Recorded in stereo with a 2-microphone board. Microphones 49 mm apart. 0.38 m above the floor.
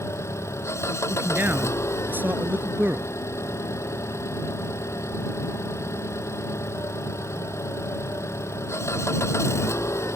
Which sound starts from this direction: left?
An engine running, at 0.0 s.